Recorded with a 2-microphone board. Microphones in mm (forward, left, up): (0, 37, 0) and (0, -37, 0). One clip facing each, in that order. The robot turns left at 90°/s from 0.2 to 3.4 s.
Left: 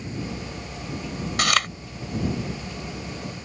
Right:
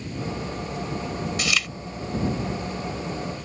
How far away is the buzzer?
I don't hear a buzzer.